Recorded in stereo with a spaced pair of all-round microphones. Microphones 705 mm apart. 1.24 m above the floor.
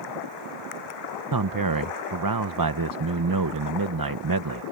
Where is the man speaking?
30° right (ahead or behind).